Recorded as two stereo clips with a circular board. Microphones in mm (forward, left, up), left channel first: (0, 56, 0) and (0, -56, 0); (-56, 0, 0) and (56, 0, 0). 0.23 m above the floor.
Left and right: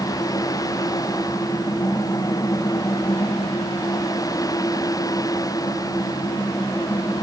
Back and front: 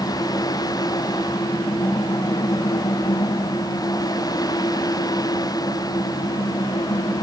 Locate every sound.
Only background noise.